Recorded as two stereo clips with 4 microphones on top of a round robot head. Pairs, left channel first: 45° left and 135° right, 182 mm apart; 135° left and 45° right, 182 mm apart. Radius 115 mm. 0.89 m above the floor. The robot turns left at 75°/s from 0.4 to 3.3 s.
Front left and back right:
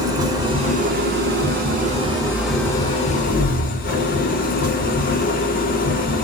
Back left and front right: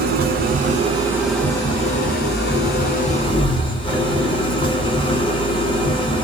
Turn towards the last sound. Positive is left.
turn(degrees=75)